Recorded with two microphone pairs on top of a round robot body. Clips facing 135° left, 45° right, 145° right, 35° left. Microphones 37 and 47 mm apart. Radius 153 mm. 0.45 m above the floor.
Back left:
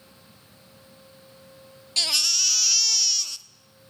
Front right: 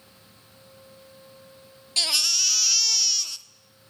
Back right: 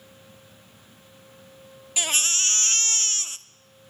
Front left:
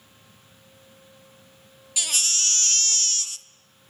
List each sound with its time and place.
2.0 s a baby crying: 125° right, 1.2 m